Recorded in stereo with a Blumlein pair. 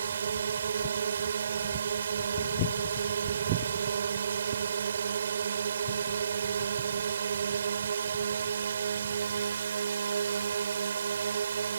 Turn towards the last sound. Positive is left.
turn(degrees=-70)